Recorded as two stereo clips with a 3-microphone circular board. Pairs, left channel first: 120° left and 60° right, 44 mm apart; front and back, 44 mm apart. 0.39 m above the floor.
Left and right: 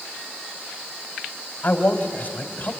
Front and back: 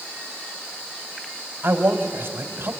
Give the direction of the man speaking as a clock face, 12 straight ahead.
7 o'clock.